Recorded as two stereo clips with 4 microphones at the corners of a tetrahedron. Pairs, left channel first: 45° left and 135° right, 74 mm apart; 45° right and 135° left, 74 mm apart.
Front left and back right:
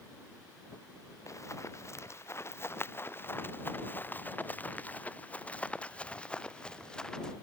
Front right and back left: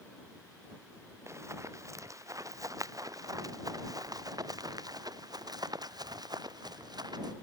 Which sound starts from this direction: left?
Running footsteps, at 1.3 s.